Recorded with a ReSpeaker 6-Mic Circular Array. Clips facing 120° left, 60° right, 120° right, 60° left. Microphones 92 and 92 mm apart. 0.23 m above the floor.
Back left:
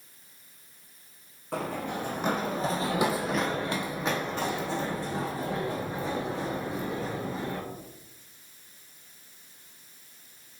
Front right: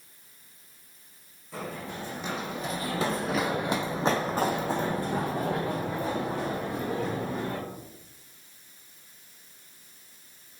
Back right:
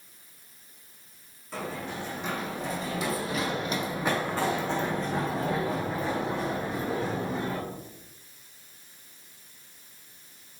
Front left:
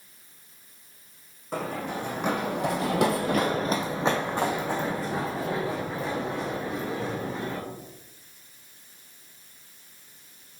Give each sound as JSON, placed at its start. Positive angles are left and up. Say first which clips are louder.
{"t": 1.5, "sound": "running footsteps", "louder": "back left 5 dB, front left 4 dB", "azimuth_deg": 100, "distance_m": 1.1}